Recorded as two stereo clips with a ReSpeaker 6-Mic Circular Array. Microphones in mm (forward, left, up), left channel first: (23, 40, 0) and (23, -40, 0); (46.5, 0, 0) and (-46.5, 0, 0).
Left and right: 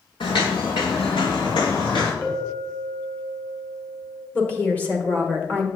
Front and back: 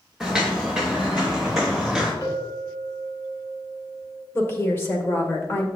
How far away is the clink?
About 2.5 m.